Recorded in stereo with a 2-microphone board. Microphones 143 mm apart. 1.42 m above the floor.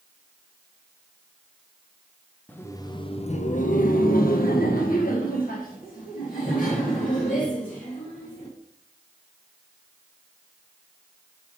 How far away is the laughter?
About 0.7 m.